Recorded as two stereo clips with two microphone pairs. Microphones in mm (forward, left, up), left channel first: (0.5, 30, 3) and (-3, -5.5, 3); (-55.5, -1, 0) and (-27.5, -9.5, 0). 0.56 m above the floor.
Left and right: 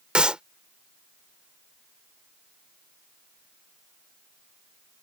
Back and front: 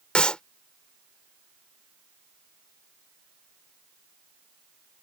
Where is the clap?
150° right.